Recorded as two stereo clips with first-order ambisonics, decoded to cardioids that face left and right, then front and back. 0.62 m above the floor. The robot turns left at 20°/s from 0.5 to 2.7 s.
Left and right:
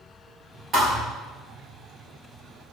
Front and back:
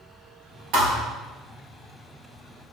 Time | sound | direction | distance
0.7 | a thud | 155° right | 1.5 m